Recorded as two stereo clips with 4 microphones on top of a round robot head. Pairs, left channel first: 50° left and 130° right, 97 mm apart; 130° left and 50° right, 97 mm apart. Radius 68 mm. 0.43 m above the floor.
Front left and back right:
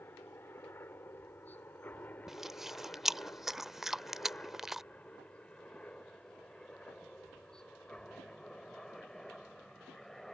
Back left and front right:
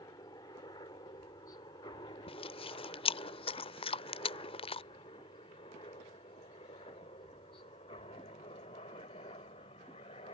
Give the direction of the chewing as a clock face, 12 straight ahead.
7 o'clock.